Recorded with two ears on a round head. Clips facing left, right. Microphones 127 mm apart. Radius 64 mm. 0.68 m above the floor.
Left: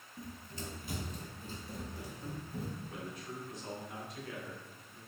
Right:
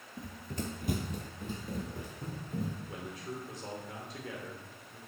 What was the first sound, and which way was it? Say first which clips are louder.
Running footsteps: right 6 dB; 20° right (ahead or behind).